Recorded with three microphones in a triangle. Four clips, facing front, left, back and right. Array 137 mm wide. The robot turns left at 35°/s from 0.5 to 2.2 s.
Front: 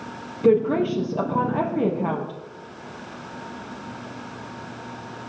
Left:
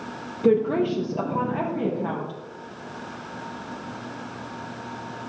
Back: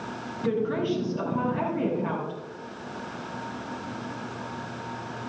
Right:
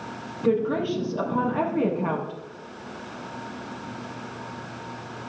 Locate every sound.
0.4 s a woman speaking: 40° left, 4 m; by 2.3 s 20° right, 4 m